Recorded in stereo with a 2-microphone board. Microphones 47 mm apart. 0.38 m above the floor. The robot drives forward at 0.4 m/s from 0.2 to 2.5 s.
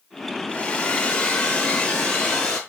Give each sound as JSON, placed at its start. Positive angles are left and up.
{"t": 0.5, "sound": "a hair dryer", "side_deg": 20, "distance_m": 0.7}